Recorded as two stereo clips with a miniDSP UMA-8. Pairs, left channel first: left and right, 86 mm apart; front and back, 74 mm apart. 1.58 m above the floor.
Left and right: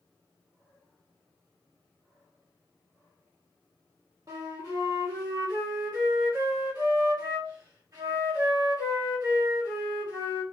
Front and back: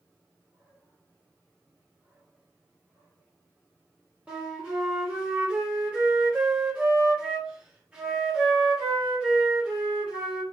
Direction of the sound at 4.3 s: 110° right.